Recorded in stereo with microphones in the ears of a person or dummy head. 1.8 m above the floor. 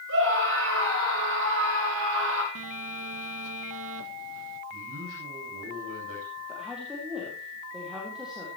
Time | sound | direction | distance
0.1 | a scream | 75° right (ahead or behind) | 7.5 m
2.5 | a phone buzzing | 75° right (ahead or behind) | 1.2 m
4.7 | a man speaking | 85° right | 9 m
6.5 | a woman speaking | 5° right (ahead or behind) | 4 m